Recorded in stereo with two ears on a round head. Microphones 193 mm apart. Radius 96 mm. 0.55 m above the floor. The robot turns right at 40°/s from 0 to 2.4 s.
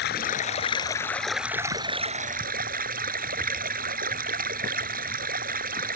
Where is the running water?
125° left; by 6.0 s 135° right.